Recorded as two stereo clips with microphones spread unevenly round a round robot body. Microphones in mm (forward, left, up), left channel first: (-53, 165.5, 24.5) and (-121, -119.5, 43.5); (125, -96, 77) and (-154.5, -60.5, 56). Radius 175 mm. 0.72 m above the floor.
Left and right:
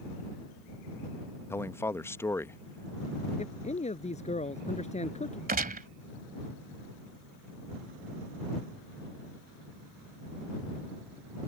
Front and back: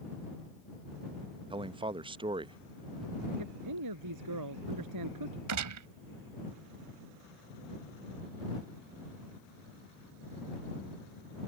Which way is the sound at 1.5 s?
140° left.